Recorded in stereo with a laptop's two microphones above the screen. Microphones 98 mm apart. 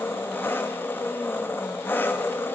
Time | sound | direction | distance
0.0 | an engine running | 20° left (ahead or behind) | 1.1 m